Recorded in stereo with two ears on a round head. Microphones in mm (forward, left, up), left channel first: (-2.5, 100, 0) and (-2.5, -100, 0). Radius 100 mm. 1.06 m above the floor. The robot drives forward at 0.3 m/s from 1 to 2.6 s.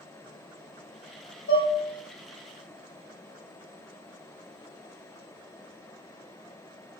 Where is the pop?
I don't hear a pop.